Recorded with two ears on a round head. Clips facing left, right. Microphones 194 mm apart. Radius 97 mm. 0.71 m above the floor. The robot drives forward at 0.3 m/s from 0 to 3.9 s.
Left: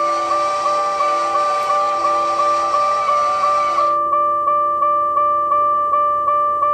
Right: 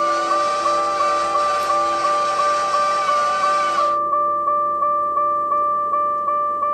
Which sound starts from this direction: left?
A vehicle, at 0.0 s.